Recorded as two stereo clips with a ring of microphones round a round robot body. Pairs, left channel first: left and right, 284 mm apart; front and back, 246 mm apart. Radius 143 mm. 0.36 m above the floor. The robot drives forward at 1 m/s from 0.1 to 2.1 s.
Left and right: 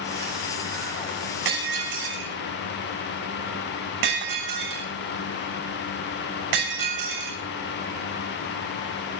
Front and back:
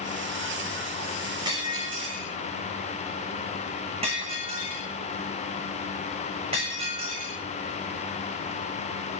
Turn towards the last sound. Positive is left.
turn(degrees=-110)